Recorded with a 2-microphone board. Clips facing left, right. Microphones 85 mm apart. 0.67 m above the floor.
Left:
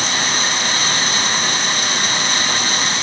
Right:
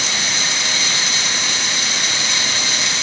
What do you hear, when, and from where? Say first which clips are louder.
0.0 s running water: left 4 dB; 45° left (ahead or behind), 3 m